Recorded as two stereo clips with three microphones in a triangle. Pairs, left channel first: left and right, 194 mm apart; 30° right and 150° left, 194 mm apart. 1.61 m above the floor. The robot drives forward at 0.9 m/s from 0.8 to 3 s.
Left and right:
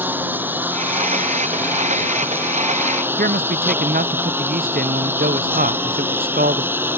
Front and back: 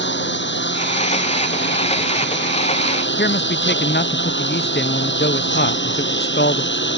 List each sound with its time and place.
0.0 s a lawn mower: 10° right
3.2 s a man speaking: 50° right